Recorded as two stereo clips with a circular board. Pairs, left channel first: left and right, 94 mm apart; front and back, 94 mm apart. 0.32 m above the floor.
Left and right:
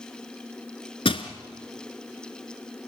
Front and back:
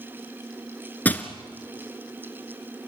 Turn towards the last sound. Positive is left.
turn(degrees=70)